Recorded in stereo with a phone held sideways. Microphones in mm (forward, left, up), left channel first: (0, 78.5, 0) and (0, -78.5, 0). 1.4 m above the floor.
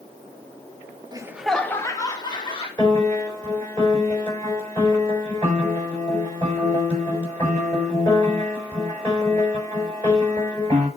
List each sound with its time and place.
1.1 s laughter: 25° right (ahead or behind), 0.7 m; by 2.7 s 30° left (ahead or behind), 2 m
2.8 s a piano: 15° left (ahead or behind), 7 m